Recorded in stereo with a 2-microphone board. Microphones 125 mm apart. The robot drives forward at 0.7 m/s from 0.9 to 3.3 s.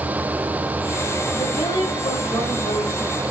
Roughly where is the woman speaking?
Left.